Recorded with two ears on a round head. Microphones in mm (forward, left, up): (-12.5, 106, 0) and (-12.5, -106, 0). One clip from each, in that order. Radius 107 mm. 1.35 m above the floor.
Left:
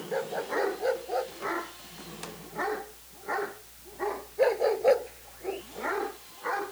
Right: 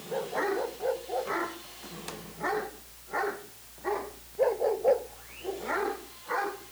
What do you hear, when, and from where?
0.1 s a dog barking: 75° left (ahead or behind)